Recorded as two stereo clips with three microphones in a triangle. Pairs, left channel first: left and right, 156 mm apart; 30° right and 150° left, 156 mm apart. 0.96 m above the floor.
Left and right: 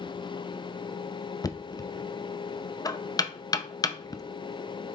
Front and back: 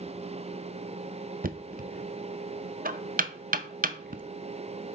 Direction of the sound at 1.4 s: 150° left.